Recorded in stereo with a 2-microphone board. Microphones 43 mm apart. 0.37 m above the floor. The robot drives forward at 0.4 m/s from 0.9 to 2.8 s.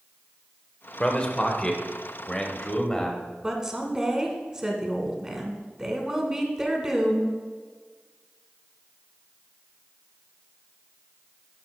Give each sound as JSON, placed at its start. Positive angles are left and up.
{"t": 1.0, "sound": "a man speaking", "side_deg": 25, "distance_m": 0.9}
{"t": 3.4, "sound": "a woman speaking", "side_deg": -15, "distance_m": 1.0}